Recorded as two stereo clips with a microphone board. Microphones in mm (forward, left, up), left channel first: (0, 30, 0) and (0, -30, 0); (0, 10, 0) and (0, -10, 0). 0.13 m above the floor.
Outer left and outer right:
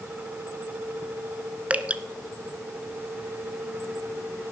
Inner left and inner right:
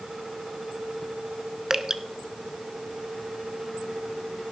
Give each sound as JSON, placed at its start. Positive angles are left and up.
{"t": 1.7, "sound": "dripping", "side_deg": -25, "distance_m": 0.6}